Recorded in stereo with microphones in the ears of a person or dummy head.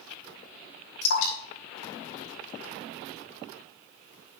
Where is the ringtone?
No ringtone in this recording.